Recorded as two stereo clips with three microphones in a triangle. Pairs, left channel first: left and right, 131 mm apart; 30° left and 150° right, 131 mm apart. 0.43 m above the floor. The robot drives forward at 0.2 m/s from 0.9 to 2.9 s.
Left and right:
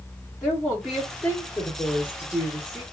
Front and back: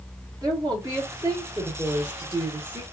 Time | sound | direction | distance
0.4 | a woman speaking | 170° right | 1.0 m